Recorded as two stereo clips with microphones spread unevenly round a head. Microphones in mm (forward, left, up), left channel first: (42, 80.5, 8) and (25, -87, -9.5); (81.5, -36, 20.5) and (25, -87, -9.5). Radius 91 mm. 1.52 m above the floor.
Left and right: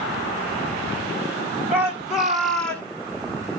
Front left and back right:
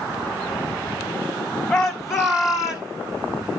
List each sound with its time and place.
1.7 s a shout: 15° right, 3 m; by 2.9 s 5° left, 3 m